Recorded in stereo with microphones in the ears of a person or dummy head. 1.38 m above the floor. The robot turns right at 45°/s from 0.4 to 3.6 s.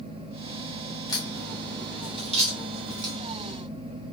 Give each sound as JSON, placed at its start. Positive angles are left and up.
{"t": 1.1, "sound": "a crack", "side_deg": 20, "distance_m": 1.0}